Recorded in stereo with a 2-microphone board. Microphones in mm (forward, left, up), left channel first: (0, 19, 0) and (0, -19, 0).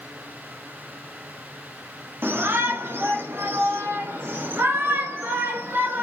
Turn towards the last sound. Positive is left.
turn(degrees=-65)  # may be behind; listen again after turning